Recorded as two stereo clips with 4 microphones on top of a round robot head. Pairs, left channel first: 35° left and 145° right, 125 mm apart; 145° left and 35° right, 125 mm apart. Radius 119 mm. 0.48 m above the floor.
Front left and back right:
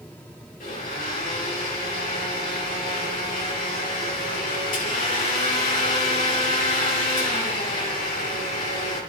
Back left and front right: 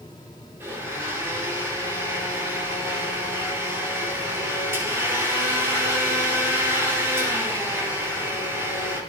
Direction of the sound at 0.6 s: 35° left.